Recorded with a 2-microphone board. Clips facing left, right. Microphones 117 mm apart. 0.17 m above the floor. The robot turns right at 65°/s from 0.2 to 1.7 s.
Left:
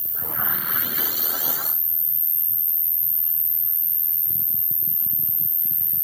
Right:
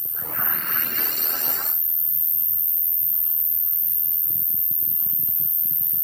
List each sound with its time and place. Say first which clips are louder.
0.0 s an insect: left 1 dB; 110° left; by 6.0 s 150° right